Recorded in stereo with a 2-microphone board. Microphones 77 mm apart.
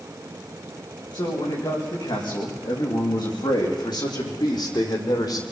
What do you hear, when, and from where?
1.1 s a man speaking: 80° left, 9 m; by 5.4 s 60° left (ahead or behind), 5 m